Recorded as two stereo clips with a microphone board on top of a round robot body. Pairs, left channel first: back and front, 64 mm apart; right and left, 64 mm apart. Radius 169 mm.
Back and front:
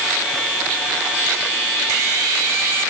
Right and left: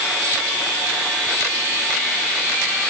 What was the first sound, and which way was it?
Only background noise.